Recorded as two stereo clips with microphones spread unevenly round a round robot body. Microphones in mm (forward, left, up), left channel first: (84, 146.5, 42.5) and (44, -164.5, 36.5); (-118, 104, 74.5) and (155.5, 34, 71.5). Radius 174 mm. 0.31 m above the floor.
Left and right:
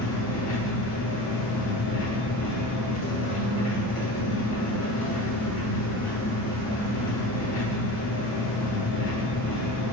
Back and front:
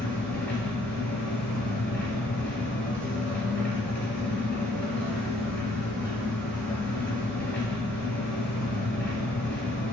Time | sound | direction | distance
0.0 | an engine running | 80° left | 2 m